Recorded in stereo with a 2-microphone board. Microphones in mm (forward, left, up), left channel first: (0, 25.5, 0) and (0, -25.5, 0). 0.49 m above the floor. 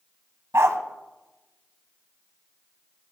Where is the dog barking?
65° right (ahead or behind), 0.6 m.